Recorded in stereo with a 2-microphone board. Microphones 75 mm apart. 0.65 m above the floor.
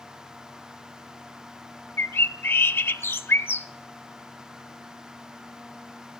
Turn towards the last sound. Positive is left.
turn(degrees=30)  # may be behind; listen again after turning